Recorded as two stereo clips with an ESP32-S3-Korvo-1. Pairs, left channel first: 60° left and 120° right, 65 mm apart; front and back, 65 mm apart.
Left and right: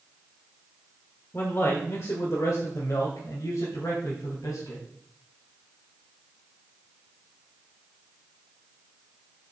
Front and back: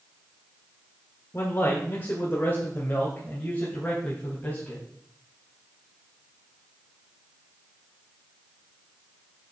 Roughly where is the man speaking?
Ahead left.